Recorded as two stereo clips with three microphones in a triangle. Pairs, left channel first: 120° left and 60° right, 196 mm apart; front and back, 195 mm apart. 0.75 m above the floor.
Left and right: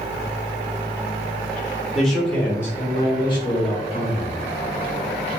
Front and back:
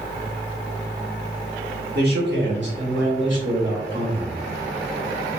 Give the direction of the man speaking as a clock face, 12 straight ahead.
5 o'clock.